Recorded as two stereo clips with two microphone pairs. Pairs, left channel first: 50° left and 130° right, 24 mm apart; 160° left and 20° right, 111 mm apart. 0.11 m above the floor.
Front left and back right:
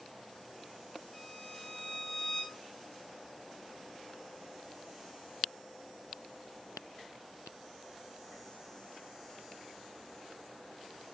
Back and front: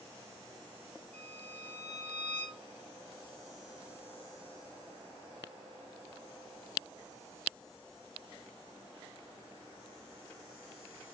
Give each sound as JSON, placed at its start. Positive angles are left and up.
{"t": 1.1, "sound": "a violin", "azimuth_deg": 85, "distance_m": 6.5}